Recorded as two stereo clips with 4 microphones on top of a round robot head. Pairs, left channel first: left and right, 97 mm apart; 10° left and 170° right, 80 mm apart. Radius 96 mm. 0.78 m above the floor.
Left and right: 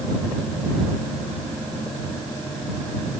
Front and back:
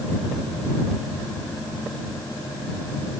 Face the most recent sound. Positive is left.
No sound to turn to.